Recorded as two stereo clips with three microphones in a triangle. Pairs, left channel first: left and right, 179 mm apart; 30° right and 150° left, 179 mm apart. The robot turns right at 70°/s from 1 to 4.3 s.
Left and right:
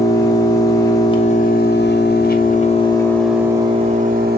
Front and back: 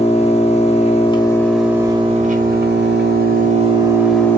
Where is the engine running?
20° left, 0.9 m; by 4.4 s 110° right, 0.9 m.